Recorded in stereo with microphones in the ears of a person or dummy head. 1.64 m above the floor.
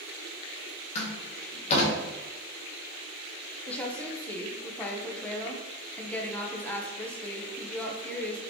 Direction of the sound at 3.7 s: 10° left (ahead or behind).